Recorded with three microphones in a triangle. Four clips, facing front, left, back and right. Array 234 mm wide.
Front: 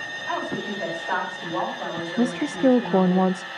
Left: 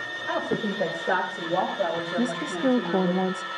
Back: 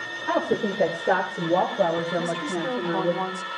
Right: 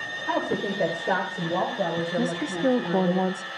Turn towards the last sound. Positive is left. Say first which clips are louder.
# left 1 dB, front 5 dB
turn(degrees=0)